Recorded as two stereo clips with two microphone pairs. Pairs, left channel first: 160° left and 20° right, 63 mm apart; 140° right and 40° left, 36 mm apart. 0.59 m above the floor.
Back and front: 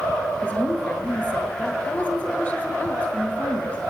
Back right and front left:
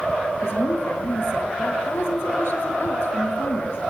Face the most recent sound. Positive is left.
turn(degrees=-135)